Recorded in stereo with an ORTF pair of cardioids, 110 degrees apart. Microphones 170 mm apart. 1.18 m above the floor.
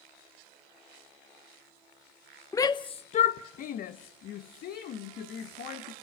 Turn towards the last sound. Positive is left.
turn(degrees=70)